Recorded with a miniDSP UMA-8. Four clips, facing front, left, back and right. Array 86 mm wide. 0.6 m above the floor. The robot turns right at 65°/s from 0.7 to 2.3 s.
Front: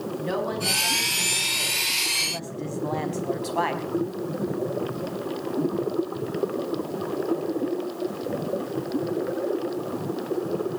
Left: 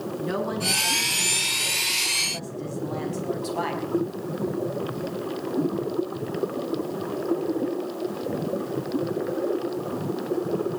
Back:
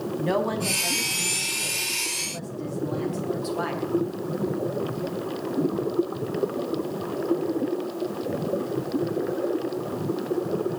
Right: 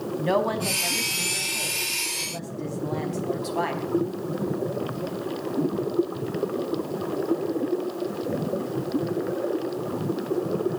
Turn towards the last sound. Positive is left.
turn(degrees=-5)